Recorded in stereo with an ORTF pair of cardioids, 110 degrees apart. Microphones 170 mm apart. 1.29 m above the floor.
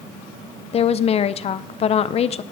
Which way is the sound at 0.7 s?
40° left.